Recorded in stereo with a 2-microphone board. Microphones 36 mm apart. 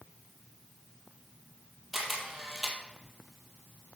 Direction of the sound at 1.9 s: 5° right (ahead or behind).